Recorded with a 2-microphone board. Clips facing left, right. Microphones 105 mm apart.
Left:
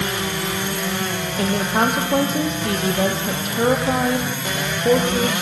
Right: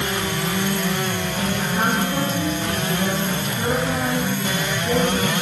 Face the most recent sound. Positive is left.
turn(degrees=65)  # may be behind; listen again after turning